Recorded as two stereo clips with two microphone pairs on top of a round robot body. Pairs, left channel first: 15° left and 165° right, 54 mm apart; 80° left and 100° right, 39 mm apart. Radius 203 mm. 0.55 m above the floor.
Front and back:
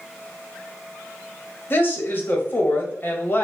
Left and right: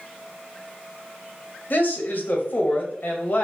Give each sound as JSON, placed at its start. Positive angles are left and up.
{"t": 1.7, "sound": "a woman speaking", "azimuth_deg": 55, "distance_m": 1.1}